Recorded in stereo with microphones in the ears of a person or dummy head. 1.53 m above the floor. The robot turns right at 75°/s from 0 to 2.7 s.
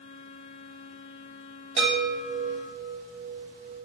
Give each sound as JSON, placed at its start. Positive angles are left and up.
{"t": 1.8, "sound": "a chime", "azimuth_deg": -140, "distance_m": 0.8}